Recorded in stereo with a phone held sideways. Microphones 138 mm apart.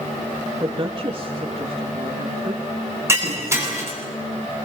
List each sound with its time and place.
0.6 s a woman speaking: 35° right (ahead or behind), 3 m
3.1 s breaking glass: 20° right (ahead or behind), 7.5 m